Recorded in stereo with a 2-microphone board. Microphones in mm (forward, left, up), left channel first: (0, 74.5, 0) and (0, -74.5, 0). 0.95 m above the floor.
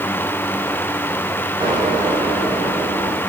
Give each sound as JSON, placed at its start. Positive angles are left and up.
{"t": 1.6, "sound": "an explosion", "side_deg": -30, "distance_m": 10.0}